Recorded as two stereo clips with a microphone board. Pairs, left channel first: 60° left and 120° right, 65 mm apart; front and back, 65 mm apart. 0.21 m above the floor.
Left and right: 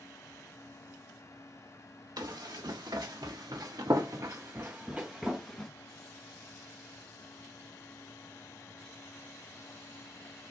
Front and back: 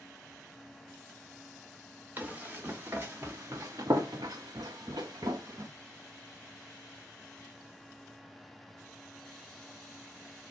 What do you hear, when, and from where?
2.2 s running footsteps: 115° right, 1.5 m; by 5.7 s 145° left, 0.9 m